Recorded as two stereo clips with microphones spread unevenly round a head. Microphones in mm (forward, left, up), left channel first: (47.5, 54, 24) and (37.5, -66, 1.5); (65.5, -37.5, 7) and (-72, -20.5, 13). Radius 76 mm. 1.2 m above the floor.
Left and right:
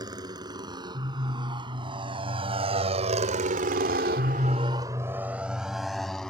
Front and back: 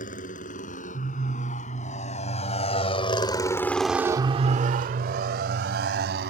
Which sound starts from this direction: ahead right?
A motorcycle, at 0.0 s.